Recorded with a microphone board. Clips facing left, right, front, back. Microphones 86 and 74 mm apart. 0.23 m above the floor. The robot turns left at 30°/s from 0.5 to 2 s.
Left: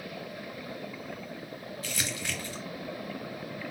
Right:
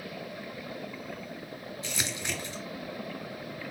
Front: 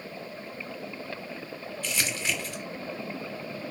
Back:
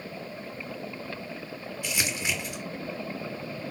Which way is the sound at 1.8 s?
120° right.